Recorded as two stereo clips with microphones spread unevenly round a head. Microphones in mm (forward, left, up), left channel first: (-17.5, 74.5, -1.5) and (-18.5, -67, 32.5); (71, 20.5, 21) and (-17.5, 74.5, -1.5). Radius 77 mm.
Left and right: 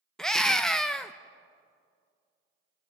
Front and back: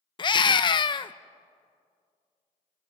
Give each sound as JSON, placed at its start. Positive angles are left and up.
{"t": 0.2, "sound": "a scream", "azimuth_deg": 15, "distance_m": 0.6}